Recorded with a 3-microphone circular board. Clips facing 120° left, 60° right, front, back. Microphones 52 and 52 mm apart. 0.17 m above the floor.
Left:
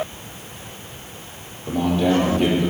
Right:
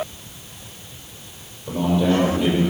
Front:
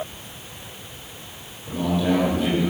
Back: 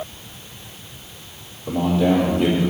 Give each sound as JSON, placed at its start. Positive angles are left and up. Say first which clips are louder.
{"t": 1.7, "sound": "a man speaking", "louder": "even, back 4 dB", "azimuth_deg": 160, "distance_m": 3.5}